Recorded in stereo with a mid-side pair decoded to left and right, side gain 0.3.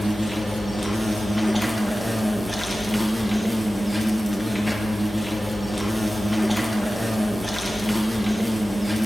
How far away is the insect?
About 0.7 m.